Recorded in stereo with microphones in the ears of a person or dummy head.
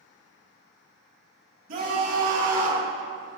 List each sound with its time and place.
1.7 s a scream: 45° right (ahead or behind), 2.5 m; by 2.9 s 40° right (ahead or behind), 1.4 m